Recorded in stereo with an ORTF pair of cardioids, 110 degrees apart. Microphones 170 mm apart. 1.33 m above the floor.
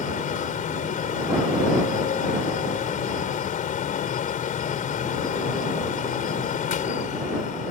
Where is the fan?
50° left.